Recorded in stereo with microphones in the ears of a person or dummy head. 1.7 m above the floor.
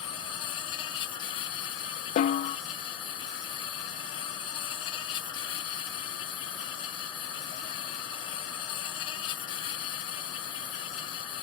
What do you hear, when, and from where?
0.0 s an insect: 30° left (ahead or behind)
2.2 s a snare drum: 40° left (ahead or behind)